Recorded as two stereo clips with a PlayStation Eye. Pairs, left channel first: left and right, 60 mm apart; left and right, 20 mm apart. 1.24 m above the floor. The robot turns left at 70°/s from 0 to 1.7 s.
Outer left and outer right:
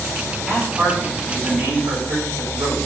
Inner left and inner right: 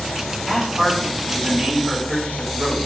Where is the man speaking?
10° right, 5 m; by 2.8 s 95° right, 5 m.